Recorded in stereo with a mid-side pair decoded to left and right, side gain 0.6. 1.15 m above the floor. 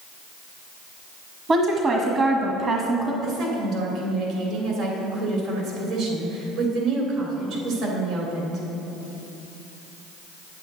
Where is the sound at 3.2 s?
65° right, 3 m.